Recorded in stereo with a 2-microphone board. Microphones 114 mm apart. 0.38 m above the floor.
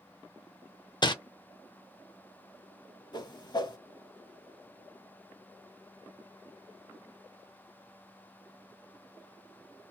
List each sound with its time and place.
1.0 s crumpling: 40° left (ahead or behind), 0.5 m
3.1 s a whoosh: 40° left (ahead or behind), 0.6 m